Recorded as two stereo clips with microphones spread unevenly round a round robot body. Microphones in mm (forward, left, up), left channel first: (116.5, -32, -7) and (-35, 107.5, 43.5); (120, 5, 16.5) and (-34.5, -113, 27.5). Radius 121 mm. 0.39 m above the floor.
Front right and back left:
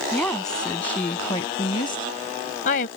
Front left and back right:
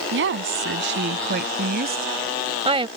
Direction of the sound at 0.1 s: 130° right.